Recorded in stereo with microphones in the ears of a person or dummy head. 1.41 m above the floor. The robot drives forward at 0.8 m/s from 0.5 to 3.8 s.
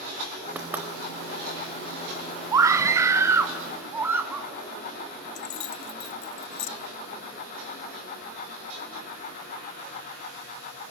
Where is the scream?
20° right (ahead or behind), 1.5 m; by 4.5 s 10° right (ahead or behind), 2.5 m.